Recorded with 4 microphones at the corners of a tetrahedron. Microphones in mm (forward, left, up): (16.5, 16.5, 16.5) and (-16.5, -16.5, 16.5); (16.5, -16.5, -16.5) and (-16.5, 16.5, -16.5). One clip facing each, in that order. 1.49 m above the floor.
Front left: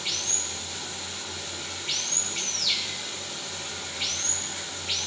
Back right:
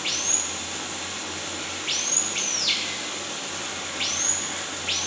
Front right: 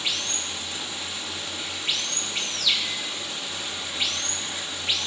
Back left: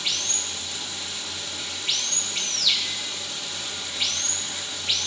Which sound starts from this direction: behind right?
Running water, at 0.0 s.